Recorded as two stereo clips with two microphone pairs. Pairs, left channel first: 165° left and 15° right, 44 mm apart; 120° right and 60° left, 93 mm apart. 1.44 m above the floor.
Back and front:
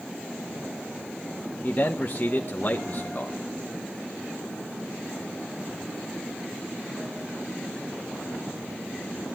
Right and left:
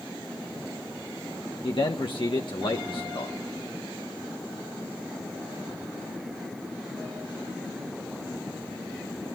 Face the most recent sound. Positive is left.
turn(degrees=-145)